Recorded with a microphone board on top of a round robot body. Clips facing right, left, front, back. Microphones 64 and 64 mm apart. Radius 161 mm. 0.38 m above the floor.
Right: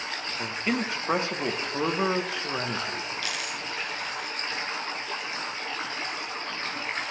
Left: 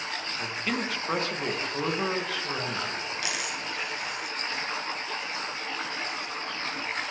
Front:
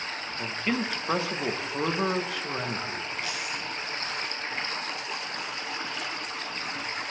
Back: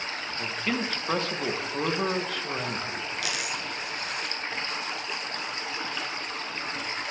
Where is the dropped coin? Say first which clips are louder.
Left 1 dB, back 1 dB; 165° left, 1.1 m.